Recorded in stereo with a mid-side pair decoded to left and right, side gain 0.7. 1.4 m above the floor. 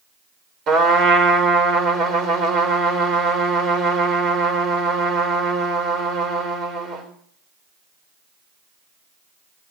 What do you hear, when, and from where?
0.7 s a trumpet: 50° right, 4 m